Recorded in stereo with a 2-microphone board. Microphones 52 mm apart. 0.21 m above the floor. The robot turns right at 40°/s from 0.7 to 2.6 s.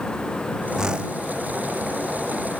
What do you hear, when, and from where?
0.8 s a whoosh: 10° right (ahead or behind); by 1.2 s 25° right (ahead or behind)